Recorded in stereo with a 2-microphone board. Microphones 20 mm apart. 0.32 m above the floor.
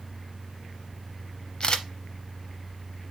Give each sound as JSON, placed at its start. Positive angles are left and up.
{"t": 1.6, "sound": "a camera shutter", "side_deg": 45, "distance_m": 0.6}